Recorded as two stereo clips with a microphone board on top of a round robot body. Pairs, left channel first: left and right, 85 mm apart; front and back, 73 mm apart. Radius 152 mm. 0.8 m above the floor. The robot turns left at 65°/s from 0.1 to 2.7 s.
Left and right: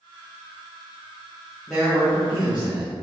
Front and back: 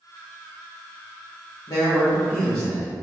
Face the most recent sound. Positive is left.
turn(degrees=-65)